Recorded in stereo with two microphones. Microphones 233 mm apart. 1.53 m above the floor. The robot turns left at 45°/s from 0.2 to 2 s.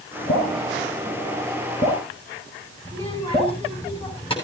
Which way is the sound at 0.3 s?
80° left.